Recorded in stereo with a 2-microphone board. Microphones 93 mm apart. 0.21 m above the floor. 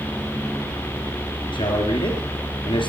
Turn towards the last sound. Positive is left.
turn(degrees=70)  # may be behind; listen again after turning